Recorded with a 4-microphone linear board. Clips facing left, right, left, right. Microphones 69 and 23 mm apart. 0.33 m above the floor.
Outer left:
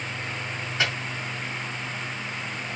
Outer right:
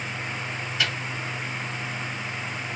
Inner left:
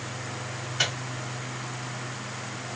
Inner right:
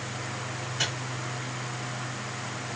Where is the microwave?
30° left (ahead or behind), 1.3 m.